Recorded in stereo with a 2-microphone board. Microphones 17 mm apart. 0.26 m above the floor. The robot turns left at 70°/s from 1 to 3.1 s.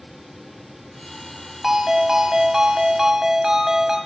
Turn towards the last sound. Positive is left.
turn(degrees=-130)